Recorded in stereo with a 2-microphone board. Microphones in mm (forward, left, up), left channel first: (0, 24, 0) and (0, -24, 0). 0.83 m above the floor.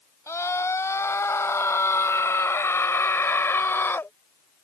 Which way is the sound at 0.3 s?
80° left.